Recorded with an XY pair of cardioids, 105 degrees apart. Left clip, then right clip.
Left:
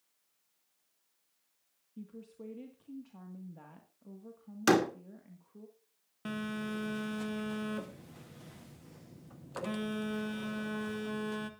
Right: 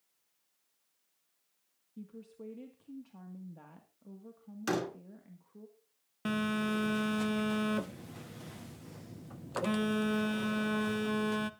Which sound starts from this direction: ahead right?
A phone buzzing, at 6.2 s.